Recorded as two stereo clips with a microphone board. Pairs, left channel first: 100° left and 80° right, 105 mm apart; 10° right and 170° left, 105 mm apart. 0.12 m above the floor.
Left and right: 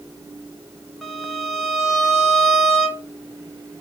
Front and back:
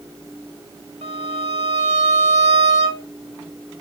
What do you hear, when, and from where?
1.0 s a violin: 170° right, 3.5 m